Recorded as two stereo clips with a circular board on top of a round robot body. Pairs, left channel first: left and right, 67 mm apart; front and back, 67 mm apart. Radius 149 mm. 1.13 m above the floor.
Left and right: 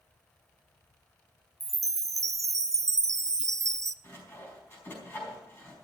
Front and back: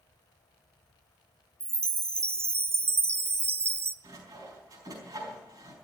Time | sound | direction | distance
1.6 | a chime | 130° right | 0.5 m
4.0 | sawing | 150° left | 4.5 m